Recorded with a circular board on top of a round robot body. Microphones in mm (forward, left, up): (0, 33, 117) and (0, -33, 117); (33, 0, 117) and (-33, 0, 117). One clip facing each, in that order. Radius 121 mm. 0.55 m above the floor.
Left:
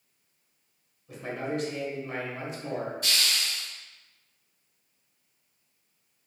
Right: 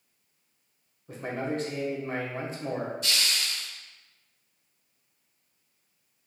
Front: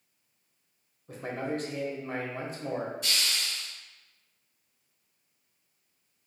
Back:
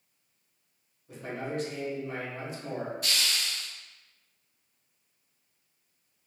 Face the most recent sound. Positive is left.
turn(degrees=140)